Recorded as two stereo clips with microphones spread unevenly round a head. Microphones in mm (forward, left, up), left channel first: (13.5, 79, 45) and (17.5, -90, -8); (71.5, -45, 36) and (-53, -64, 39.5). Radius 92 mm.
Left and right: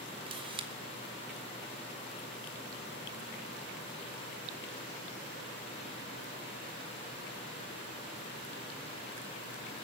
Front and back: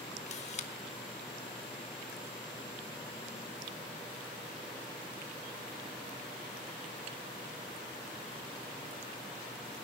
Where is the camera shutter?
25° right, 1.6 m.